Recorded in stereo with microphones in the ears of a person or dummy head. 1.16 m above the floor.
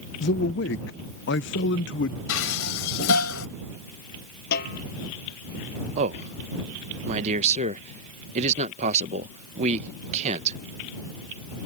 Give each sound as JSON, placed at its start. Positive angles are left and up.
{"t": 0.2, "sound": "a man speaking", "side_deg": 60}
{"t": 2.3, "sound": "dishes clattering", "side_deg": 80}
{"t": 4.5, "sound": "a snare drum", "side_deg": 60}
{"t": 6.0, "sound": "a man speaking", "side_deg": -40}